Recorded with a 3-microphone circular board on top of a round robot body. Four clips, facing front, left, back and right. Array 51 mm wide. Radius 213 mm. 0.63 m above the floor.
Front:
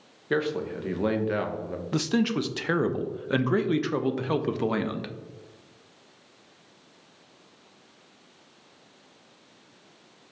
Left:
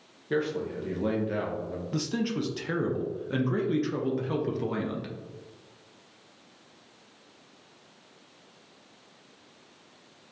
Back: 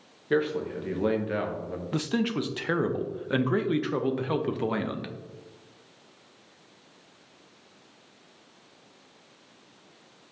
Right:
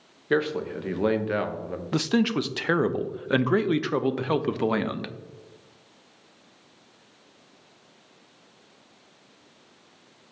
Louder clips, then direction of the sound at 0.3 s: Right 4 dB, back 1 dB; 75° right.